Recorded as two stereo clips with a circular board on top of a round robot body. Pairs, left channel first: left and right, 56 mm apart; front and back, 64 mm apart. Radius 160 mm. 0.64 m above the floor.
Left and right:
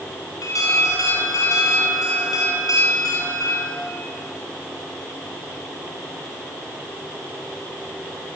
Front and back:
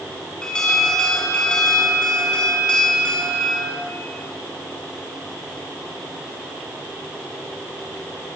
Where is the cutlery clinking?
No cutlery clinking in this recording.